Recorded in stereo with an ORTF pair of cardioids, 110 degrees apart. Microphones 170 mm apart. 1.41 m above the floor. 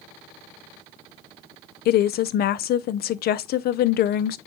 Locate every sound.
1.9 s a woman speaking: 60° left, 0.7 m